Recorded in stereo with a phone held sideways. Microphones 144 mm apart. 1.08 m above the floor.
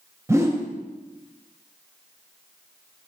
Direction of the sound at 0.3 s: 20° right (ahead or behind).